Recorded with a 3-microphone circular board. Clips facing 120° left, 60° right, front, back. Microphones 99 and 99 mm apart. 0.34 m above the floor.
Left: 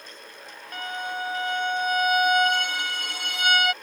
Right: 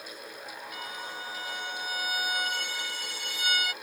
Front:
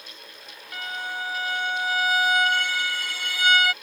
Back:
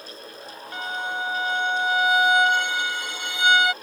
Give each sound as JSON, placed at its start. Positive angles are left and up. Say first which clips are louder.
{"t": 0.7, "sound": "a violin", "louder": "left 11 dB, back 3 dB", "azimuth_deg": 115}